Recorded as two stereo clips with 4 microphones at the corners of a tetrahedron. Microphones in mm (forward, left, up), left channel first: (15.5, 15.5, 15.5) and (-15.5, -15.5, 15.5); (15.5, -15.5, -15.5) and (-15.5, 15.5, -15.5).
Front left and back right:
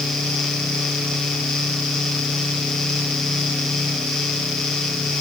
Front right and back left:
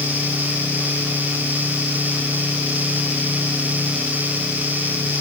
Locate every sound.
Only background noise.